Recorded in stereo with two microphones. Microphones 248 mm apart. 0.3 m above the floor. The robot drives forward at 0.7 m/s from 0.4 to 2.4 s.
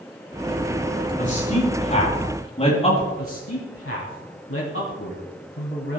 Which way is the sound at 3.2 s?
60° left (ahead or behind).